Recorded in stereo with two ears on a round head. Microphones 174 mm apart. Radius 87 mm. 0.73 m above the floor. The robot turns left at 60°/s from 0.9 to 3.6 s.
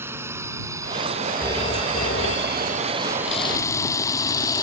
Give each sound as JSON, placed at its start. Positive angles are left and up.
{"t": 0.0, "sound": "a drone", "side_deg": -15}
{"t": 1.4, "sound": "a phone ringing", "azimuth_deg": 170}
{"t": 3.3, "sound": "a camera shutter", "side_deg": 35}